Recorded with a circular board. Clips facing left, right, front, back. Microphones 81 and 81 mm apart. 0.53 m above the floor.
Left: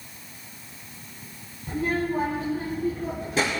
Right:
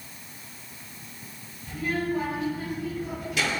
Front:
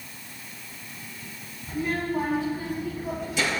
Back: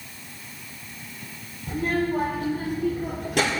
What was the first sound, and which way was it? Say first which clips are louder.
A child speaking: left 2 dB, back 3 dB; 140° left.